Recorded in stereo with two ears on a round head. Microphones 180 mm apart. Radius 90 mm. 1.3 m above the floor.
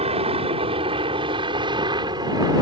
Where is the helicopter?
30° right (ahead or behind); by 2.6 s 20° right (ahead or behind).